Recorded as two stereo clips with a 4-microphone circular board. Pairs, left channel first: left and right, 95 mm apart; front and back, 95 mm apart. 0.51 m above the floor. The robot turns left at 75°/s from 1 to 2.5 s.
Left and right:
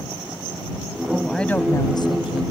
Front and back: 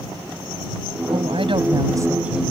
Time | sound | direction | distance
1.1 | a woman speaking | 165° right | ?